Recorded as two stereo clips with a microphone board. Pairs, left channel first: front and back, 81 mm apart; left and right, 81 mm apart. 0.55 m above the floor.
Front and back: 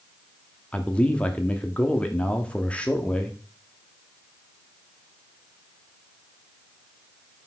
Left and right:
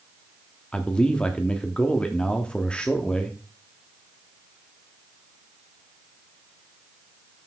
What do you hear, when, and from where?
0.7 s a man speaking: 40° left, 0.8 m